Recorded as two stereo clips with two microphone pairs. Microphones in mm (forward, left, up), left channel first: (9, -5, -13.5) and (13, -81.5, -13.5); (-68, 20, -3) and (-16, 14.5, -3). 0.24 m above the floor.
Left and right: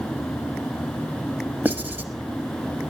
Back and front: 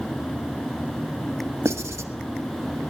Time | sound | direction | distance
1.6 | writing | 25° right | 1.1 m